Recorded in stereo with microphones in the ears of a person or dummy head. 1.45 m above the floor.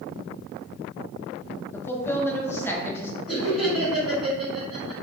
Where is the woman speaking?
10° left (ahead or behind), 0.6 m.